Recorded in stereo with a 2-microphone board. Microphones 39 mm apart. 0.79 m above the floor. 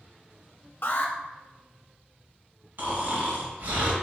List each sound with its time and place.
0.8 s an alarm: 55° left (ahead or behind), 0.6 m
2.8 s snoring: 60° right (ahead or behind), 1.5 m